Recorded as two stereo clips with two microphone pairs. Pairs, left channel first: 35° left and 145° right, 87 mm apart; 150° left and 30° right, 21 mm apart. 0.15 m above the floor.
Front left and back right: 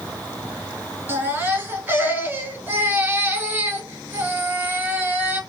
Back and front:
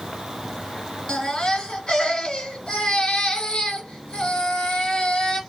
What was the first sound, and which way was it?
A baby crying, 160° left.